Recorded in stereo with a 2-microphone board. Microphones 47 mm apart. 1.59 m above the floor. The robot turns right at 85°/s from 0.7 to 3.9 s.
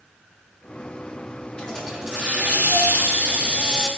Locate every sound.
1.6 s a hiss: 155° left, 1.9 m; by 3.9 s 5° right, 1.9 m